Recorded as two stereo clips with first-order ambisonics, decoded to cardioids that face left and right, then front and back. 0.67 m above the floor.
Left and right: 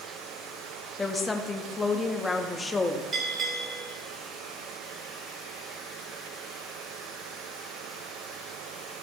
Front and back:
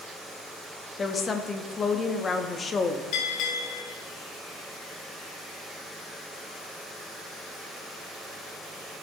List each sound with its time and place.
1.0 s a woman speaking: 35° left, 0.8 m
3.1 s a bell: 20° right, 2.5 m